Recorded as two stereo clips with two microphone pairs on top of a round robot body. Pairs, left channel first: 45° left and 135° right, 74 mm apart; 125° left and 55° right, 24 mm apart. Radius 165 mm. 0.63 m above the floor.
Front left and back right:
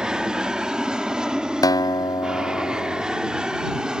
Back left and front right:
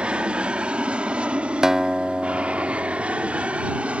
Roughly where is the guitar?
Ahead.